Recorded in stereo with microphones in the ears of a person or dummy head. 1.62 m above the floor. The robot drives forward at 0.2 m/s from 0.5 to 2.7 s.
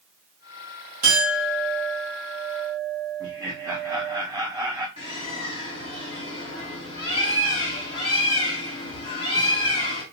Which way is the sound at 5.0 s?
25° left (ahead or behind).